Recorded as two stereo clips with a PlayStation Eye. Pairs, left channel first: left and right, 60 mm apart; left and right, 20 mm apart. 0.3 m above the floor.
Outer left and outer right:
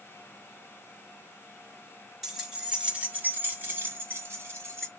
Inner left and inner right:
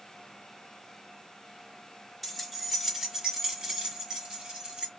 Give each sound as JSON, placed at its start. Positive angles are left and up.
{"t": 2.2, "sound": "keys jangling", "side_deg": -5, "distance_m": 1.3}